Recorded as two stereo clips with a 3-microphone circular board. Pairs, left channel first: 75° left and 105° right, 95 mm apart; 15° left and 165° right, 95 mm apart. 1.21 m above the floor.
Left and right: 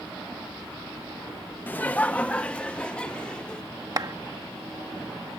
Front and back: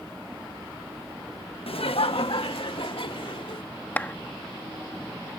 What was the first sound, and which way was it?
Laughter, 5° left.